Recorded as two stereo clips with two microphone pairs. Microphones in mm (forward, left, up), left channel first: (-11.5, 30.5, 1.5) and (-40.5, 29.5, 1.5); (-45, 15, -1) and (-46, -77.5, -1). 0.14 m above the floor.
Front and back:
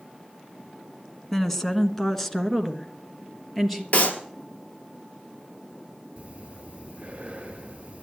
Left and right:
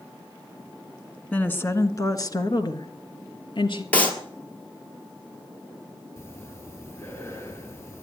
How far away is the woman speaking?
About 1.0 m.